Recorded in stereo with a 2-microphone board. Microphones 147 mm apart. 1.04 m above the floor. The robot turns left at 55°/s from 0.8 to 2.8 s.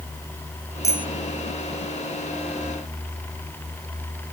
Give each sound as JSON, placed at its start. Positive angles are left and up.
{"t": 0.8, "sound": "a bicycle bell", "side_deg": 20}